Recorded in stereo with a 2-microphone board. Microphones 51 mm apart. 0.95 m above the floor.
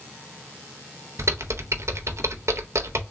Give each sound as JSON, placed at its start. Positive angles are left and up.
{"t": 1.2, "sound": "typing on a keyboard", "side_deg": -65, "distance_m": 0.5}